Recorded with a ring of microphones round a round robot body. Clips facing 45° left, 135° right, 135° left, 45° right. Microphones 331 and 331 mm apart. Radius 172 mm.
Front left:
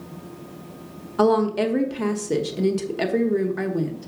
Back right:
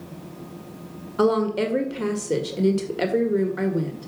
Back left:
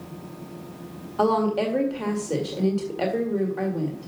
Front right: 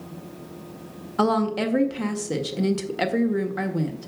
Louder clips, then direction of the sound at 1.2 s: Front left 1 dB, even; 35° right.